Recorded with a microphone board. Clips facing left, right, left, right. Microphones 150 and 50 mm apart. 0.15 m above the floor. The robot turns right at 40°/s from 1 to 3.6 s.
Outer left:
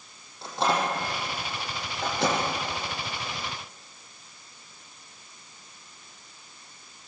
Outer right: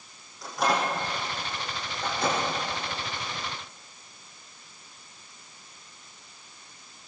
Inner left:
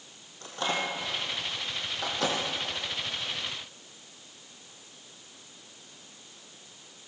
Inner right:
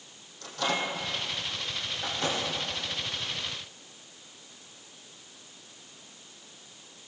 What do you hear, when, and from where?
0.4 s a microwave: 25° left (ahead or behind), 6 m; by 2.4 s 75° left (ahead or behind), 6 m